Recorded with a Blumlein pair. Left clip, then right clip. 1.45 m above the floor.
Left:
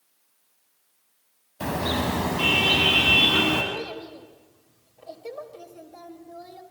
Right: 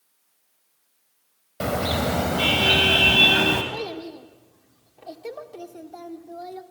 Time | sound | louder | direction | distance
1.6 | a car horn | right 2 dB | 40° right | 4.5 m
3.7 | a child speaking | right 2 dB | 25° right | 2.5 m